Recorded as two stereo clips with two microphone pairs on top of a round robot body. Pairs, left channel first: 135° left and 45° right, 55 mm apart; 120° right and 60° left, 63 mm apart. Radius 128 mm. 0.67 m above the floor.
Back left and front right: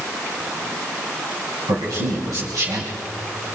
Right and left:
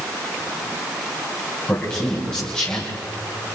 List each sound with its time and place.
1.7 s a man speaking: 45° right, 4 m